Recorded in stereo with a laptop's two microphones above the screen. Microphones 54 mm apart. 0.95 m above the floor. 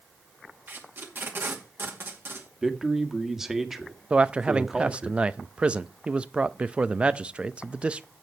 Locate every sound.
0.7 s tape being pulled: 45° right (ahead or behind), 2 m
2.6 s a man speaking: 10° right (ahead or behind), 1.5 m
4.1 s a man speaking: 20° right (ahead or behind), 0.5 m